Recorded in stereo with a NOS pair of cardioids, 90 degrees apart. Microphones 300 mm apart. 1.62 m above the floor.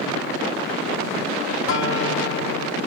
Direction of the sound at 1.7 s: 60° left.